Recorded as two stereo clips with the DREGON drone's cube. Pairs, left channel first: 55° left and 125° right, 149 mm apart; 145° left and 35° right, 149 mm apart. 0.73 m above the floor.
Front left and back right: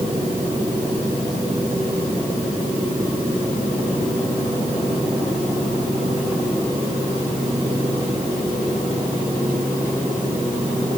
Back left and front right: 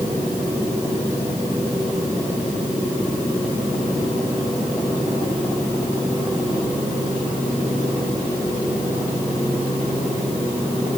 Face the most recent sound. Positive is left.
No sound to turn to.